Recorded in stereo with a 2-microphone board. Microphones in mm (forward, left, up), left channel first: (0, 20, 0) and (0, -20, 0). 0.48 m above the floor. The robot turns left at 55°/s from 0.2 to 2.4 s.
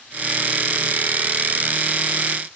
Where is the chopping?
I don't hear chopping.